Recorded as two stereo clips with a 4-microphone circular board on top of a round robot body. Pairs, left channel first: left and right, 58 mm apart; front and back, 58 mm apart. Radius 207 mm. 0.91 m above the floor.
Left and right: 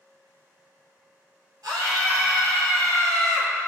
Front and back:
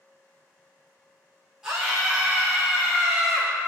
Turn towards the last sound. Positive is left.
turn(degrees=-100)